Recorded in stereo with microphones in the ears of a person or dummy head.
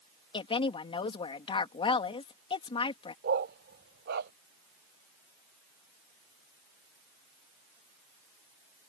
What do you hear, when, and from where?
0.3 s a woman speaking: 30° left (ahead or behind)
3.2 s a dog barking: 60° right (ahead or behind)